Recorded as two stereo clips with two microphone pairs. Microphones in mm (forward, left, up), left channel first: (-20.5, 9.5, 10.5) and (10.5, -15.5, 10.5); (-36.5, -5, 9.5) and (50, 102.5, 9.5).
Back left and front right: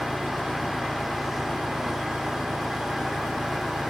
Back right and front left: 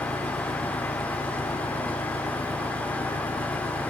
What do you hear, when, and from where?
0.0 s an engine running: 170° right